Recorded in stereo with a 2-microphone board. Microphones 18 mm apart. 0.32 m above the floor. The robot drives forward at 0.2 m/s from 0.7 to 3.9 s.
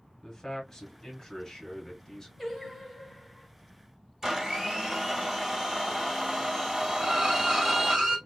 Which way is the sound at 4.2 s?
20° right (ahead or behind).